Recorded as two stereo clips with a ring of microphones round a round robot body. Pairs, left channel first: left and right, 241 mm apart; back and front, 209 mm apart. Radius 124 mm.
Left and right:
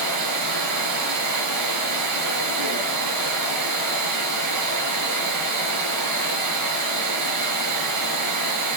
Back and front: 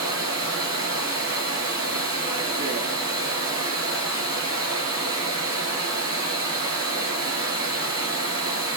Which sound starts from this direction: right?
Running water, at 0.0 s.